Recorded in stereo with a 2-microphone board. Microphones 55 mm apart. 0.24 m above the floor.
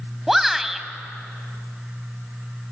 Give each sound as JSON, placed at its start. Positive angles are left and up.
{"t": 0.3, "sound": "a shout", "side_deg": -5, "distance_m": 1.5}